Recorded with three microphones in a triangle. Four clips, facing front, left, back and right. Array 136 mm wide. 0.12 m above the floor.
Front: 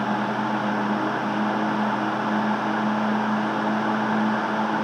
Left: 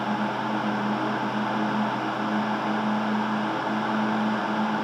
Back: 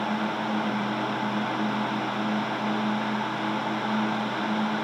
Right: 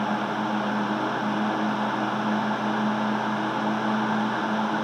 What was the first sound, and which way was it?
Only background noise.